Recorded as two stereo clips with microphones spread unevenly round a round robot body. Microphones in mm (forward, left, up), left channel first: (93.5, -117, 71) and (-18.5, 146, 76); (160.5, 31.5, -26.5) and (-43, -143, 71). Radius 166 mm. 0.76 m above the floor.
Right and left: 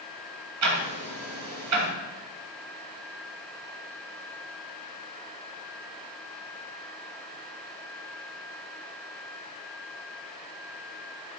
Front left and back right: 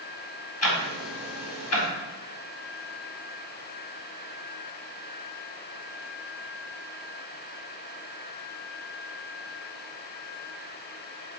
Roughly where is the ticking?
Left.